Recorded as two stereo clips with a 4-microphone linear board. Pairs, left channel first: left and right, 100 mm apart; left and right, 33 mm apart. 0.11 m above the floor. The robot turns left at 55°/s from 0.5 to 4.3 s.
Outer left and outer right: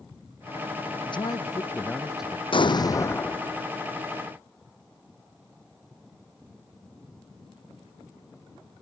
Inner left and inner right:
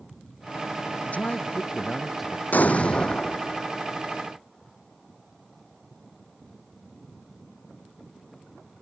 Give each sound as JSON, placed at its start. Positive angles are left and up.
{"t": 1.1, "sound": "a man speaking", "azimuth_deg": 60}
{"t": 2.5, "sound": "an explosion", "azimuth_deg": 60}